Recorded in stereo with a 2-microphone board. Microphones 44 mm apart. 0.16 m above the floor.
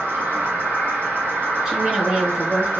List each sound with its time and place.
0.0 s an insect: 75° right (ahead or behind), 1.6 m
1.6 s a woman speaking: 15° right (ahead or behind), 2.0 m